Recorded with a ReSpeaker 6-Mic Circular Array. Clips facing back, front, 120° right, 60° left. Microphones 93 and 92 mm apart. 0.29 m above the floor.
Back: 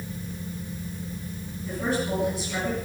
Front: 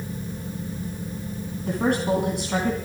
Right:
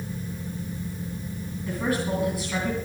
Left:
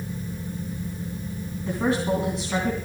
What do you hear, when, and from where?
1.6 s a woman speaking: straight ahead, 3 m